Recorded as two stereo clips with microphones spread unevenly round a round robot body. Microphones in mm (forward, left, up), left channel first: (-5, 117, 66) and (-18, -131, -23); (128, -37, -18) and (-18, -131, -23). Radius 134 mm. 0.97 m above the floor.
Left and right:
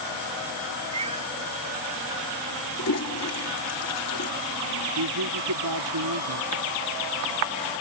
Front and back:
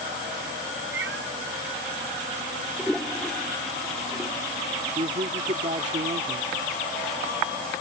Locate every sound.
0.9 s a cat meowing: 165° right
2.8 s a toilet flushing: 120° left
5.0 s a man speaking: 100° right